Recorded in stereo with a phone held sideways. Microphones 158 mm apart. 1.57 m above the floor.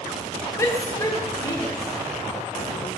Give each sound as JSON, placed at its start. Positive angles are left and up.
{"t": 0.6, "sound": "a shout", "side_deg": 20, "distance_m": 2.5}